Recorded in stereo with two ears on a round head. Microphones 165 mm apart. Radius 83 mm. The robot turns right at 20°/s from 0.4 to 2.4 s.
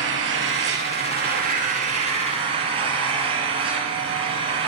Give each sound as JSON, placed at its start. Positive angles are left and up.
{"t": 0.0, "sound": "an engine running", "azimuth_deg": -70, "distance_m": 4.5}